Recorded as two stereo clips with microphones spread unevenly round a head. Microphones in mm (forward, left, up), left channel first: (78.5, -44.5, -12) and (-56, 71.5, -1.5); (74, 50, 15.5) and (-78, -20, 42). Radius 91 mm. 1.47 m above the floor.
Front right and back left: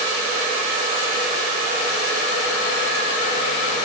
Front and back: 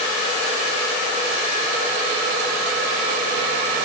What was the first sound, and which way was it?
Only background noise.